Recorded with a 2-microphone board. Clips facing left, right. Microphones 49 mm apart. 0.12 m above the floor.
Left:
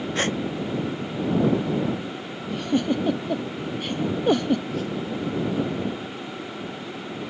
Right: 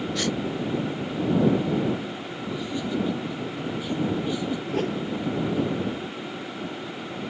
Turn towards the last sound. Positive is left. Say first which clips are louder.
# right 2 dB
turn(degrees=-50)  # may be behind; listen again after turning